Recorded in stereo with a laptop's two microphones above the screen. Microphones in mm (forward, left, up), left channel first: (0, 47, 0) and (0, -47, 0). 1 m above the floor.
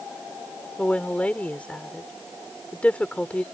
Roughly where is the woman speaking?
Centre.